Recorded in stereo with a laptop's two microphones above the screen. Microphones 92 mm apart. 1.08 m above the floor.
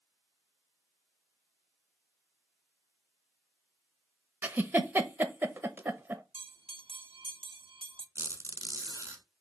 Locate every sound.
4.4 s a giggle: 20° right (ahead or behind), 0.9 m
6.3 s a bell: 80° right, 0.6 m
8.2 s a squeak: 30° right (ahead or behind), 1.1 m